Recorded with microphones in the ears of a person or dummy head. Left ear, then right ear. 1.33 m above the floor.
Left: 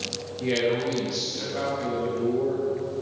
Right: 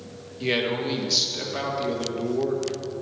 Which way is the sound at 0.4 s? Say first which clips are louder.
Even; 25° right (ahead or behind).